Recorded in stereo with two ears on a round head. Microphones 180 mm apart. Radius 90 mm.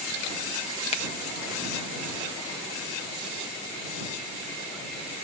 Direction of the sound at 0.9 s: 30° left (ahead or behind).